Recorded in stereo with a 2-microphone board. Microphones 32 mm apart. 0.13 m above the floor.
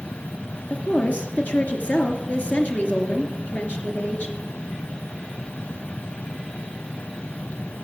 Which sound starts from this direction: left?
A woman speaking, at 0.7 s.